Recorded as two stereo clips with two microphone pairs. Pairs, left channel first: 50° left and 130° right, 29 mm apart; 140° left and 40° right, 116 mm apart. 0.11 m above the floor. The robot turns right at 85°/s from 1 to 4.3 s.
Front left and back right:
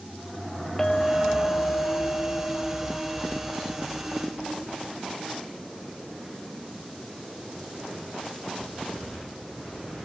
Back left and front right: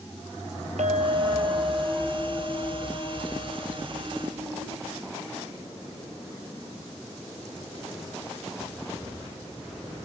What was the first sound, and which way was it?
A clink, 25° right.